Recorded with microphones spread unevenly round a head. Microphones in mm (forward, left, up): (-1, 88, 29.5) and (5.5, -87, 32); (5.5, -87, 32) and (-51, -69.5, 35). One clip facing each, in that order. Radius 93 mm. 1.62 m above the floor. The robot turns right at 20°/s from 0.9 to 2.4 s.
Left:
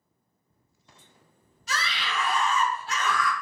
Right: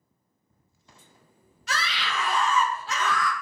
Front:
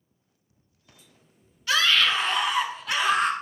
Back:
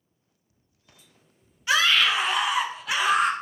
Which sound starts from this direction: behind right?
A scream, at 1.7 s.